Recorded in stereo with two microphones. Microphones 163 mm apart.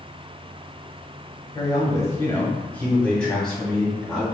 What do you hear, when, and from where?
1.6 s a man speaking: 25° left (ahead or behind), 1.2 m; by 4.2 s centre (ahead or behind), 2.0 m